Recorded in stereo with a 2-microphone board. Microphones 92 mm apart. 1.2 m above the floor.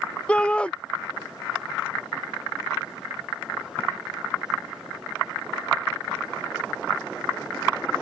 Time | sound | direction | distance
0.3 | a shout | 10° left (ahead or behind) | ?